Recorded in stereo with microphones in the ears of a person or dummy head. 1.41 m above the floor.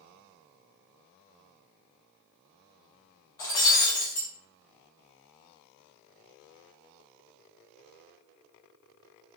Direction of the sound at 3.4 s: 15° left (ahead or behind).